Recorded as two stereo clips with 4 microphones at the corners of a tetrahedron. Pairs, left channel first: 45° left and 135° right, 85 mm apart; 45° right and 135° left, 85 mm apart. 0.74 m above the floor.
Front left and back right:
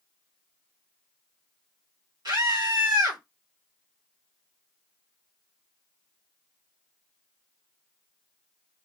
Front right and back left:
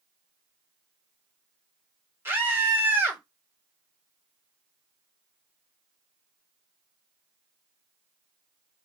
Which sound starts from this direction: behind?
A scream, at 2.2 s.